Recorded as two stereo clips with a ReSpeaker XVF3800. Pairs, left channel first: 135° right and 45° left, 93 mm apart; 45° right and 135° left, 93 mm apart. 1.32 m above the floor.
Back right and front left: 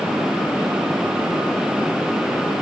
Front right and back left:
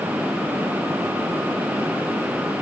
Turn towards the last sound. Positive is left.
No sound to turn to.